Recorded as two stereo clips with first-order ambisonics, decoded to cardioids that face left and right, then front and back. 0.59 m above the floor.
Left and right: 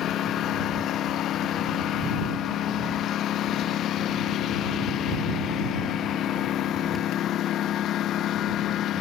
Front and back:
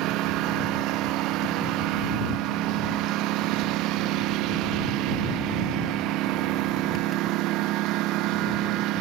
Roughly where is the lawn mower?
Behind left.